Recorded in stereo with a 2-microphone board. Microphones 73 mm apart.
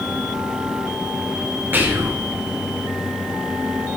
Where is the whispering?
30° right (ahead or behind), 0.7 m.